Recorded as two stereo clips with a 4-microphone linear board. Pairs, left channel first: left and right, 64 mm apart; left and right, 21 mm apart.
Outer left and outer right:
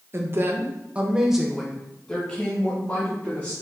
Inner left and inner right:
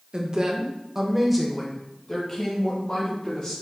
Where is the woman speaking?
40° right (ahead or behind), 0.8 m; by 3.5 s 25° left (ahead or behind), 1.6 m.